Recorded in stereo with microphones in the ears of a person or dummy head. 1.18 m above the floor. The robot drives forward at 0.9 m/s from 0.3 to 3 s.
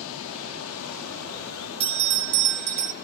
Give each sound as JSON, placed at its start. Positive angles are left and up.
{"t": 0.0, "sound": "running water", "side_deg": 70, "distance_m": 2.0}
{"t": 1.8, "sound": "a bell", "side_deg": -30, "distance_m": 0.8}